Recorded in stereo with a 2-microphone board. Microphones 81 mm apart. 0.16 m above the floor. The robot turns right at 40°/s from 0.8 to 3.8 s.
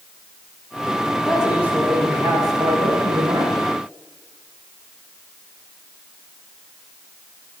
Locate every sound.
1.2 s a man speaking: straight behind, 8.5 m; by 3.6 s 85° right, 8.5 m